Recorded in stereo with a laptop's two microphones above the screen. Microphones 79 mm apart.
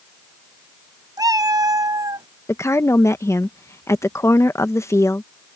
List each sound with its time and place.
1.2 s a cat meowing: 50° right (ahead or behind)
2.5 s a woman speaking: 35° left (ahead or behind)